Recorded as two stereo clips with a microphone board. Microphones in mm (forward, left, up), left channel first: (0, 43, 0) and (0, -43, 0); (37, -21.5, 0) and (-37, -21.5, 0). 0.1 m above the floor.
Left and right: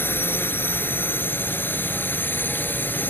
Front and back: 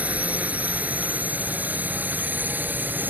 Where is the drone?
130° left; by 3.1 s 140° left.